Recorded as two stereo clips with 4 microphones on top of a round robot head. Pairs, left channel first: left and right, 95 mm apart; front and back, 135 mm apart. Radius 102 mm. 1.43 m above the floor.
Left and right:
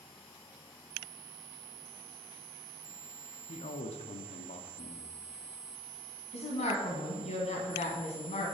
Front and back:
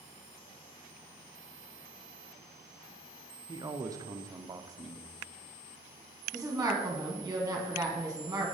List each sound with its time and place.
3.5 s a man speaking: 115° left, 0.6 m
6.3 s a woman speaking: 105° left, 1.4 m